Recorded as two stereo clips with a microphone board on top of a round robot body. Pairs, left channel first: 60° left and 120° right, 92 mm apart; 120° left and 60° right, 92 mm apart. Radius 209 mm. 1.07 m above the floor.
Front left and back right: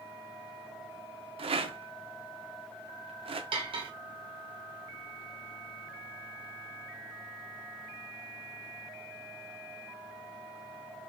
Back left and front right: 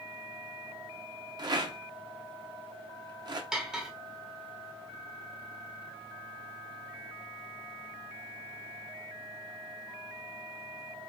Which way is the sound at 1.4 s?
105° right.